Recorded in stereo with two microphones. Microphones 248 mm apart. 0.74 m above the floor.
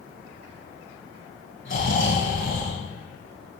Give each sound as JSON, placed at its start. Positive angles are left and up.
{"t": 1.6, "sound": "snoring", "side_deg": 50, "distance_m": 7.5}